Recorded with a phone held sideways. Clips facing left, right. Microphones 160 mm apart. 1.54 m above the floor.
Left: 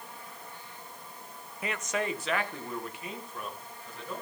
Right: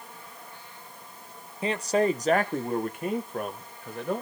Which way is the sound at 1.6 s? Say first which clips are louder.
Right 9 dB; 30° right (ahead or behind).